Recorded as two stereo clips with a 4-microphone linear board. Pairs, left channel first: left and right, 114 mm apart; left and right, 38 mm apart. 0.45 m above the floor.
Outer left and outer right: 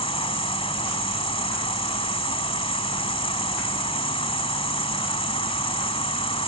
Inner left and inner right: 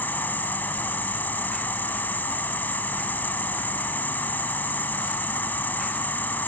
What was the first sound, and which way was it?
An insect, 60° left (ahead or behind).